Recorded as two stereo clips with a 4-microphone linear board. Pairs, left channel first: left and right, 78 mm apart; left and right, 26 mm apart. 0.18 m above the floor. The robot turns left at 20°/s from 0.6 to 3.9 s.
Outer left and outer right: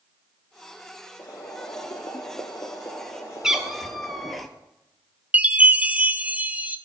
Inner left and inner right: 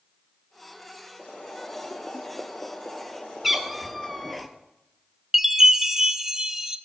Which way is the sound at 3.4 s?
10° right (ahead or behind).